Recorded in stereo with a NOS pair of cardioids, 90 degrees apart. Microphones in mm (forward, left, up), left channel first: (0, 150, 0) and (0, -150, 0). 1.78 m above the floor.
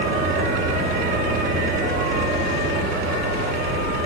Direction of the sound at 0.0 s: 45° right.